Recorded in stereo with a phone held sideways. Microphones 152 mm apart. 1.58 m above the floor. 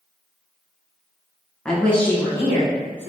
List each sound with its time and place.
1.6 s a woman speaking: 5° left (ahead or behind), 0.9 m; by 3.1 s 10° left (ahead or behind), 2 m